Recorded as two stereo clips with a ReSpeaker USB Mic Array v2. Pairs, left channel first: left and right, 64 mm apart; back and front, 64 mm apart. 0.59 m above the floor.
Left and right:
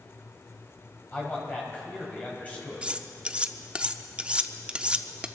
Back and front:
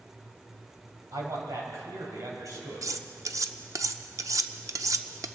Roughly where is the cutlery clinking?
Ahead.